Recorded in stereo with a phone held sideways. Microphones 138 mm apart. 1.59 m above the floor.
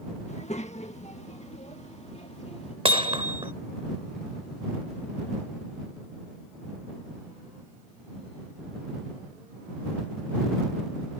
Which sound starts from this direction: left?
A child speaking, at 0.3 s.